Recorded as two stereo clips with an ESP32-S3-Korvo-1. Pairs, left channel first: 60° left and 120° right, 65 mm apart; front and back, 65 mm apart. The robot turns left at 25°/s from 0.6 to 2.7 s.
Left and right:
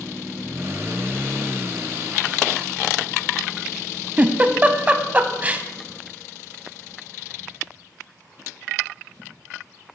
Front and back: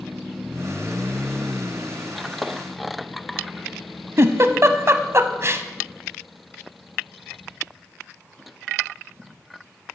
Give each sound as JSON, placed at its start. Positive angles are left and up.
{"t": 4.2, "sound": "a giggle", "azimuth_deg": -175, "distance_m": 0.5}